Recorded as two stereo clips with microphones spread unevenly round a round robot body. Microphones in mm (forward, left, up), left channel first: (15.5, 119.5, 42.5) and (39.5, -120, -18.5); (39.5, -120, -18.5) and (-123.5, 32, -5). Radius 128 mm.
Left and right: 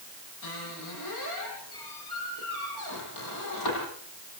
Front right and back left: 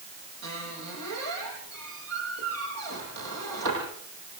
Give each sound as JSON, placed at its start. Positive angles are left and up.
{"t": 0.4, "sound": "a squeak", "azimuth_deg": 105, "distance_m": 9.5}